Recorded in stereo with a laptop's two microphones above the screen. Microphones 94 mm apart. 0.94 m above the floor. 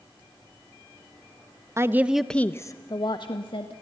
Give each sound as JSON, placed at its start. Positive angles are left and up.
{"t": 1.8, "sound": "a woman speaking", "side_deg": -30, "distance_m": 1.2}